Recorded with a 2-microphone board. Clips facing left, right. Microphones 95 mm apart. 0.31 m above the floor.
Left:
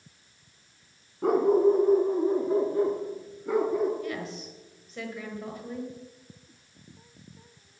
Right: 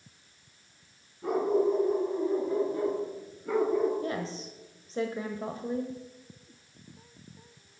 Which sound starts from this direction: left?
A dog barking, at 1.2 s.